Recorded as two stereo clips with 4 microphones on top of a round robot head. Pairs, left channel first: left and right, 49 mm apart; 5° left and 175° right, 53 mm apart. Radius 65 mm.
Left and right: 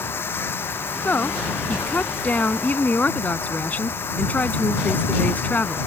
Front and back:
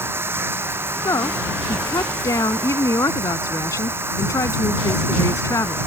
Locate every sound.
0.0 s running water: 140° left
1.1 s a woman speaking: 30° left